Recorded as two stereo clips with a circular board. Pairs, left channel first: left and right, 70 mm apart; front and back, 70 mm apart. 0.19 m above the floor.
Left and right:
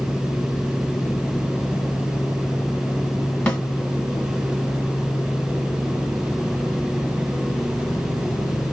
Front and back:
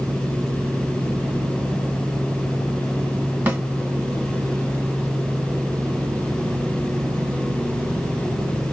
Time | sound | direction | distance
3.5 | a snare drum | 145° left | 1.7 m